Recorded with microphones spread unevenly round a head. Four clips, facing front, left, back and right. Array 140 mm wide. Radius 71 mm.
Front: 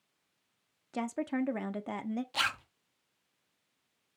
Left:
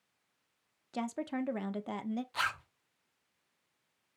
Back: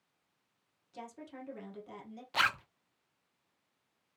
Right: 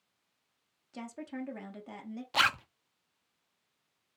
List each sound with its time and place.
0.9 s a woman speaking: 30° left, 0.7 m
2.3 s a zipper: 95° right, 0.5 m